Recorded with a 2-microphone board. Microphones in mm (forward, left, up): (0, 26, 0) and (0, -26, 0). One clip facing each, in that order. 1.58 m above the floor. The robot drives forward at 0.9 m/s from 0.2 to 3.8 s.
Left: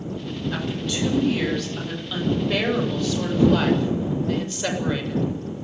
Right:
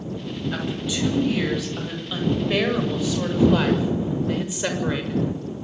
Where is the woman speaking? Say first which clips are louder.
Even; 10° right (ahead or behind), 9.5 m; by 5.2 s 15° right (ahead or behind), 6.5 m.